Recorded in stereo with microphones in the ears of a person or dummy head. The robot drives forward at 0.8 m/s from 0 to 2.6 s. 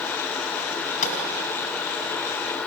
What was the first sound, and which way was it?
A gunshot, 50° left (ahead or behind).